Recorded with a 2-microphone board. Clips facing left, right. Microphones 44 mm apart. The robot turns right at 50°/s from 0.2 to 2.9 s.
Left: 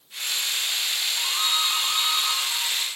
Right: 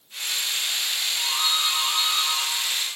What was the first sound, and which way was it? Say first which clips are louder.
A doorbell: right 1 dB; 35° left.